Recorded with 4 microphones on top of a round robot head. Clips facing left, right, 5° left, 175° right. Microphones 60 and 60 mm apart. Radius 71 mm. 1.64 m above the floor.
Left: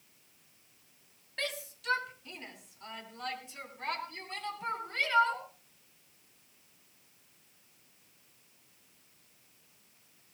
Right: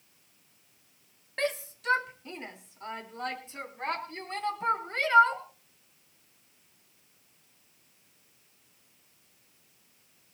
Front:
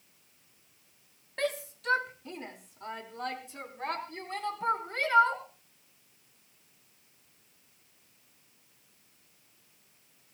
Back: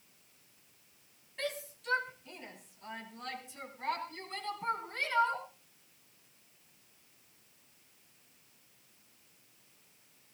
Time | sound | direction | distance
1.4 | a shout | 35° right | 2 m